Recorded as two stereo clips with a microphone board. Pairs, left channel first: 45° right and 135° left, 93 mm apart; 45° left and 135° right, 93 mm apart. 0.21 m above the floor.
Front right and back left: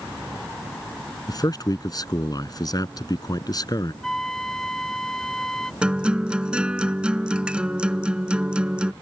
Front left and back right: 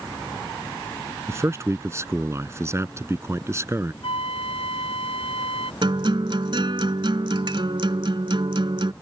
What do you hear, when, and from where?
1.3 s a man speaking: 80° right
4.0 s a flute: 40° left
5.8 s a guitar: 145° right